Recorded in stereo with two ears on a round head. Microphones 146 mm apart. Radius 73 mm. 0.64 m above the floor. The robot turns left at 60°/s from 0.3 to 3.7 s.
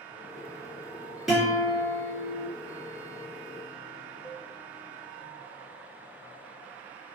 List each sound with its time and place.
1.3 s a guitar: straight ahead, 2 m; by 2.5 s 75° right, 2 m
4.2 s a cowbell: 25° left (ahead or behind), 1.0 m